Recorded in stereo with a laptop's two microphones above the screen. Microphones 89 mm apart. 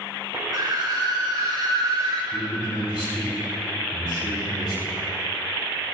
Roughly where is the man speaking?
Left.